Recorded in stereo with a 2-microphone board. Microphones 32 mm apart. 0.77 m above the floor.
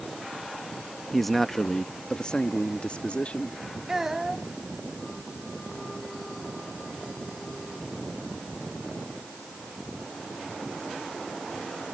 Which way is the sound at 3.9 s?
10° right (ahead or behind).